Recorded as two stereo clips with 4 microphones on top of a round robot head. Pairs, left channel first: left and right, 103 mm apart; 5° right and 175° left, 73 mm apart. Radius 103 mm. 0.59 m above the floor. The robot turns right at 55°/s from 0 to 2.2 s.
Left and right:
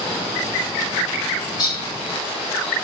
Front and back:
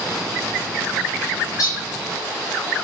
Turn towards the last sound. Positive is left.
turn(degrees=65)